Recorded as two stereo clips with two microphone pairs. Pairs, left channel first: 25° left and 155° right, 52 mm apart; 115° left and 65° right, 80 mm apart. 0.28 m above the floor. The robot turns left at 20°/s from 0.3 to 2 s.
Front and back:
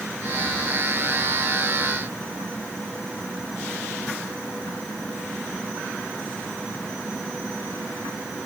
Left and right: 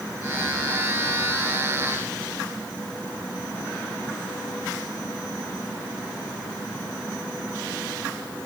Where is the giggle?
I don't hear a giggle.